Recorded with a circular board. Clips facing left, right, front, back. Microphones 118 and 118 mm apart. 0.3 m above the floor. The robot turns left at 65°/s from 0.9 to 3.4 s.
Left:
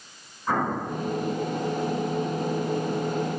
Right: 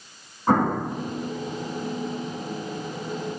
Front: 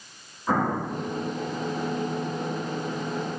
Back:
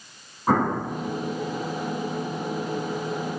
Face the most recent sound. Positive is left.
turn(degrees=55)